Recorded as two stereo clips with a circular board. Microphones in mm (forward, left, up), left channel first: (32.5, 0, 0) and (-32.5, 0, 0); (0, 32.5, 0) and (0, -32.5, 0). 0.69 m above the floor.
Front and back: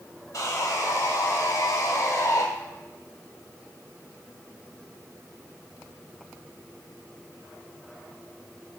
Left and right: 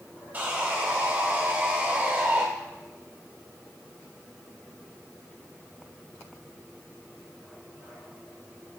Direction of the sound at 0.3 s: 30° right.